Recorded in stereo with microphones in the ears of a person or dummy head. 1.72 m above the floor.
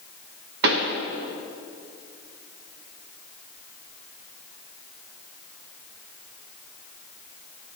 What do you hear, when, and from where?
0.6 s a pop: 60° right (ahead or behind), 0.8 m